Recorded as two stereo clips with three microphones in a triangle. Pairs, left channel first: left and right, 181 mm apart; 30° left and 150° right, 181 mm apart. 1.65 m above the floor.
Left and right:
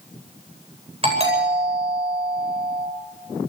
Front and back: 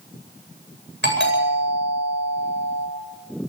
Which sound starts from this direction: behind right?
A doorbell, at 1.0 s.